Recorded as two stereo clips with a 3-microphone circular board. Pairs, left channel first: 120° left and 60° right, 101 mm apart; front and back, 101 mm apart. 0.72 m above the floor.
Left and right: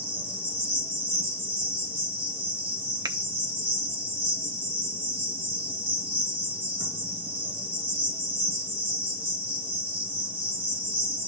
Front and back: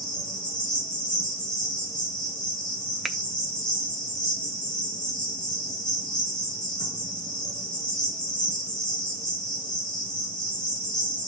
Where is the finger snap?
90° right, 0.5 m.